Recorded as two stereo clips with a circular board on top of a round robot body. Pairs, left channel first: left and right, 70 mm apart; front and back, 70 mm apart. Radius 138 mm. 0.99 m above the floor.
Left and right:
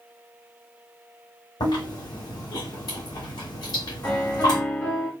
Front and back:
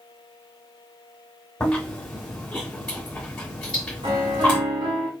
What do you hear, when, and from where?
1.6 s chewing: 80° left, 1.9 m
4.0 s a piano: 160° left, 1.2 m